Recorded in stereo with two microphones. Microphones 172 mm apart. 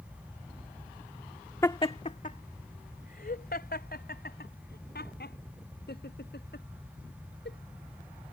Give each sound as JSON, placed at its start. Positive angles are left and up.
{"t": 1.6, "sound": "laughter", "side_deg": 20}